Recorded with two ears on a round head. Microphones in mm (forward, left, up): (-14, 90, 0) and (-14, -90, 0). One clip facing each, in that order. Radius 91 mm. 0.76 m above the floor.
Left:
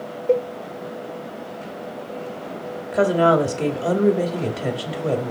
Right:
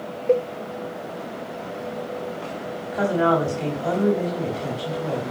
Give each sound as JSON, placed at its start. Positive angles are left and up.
{"t": 0.3, "sound": "a cowbell", "side_deg": 5, "distance_m": 0.7}
{"t": 2.9, "sound": "a woman speaking", "side_deg": 60, "distance_m": 2.5}